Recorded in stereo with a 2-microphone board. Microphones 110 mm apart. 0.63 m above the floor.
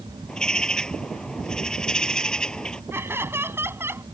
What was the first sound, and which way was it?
A bird, 10° left (ahead or behind).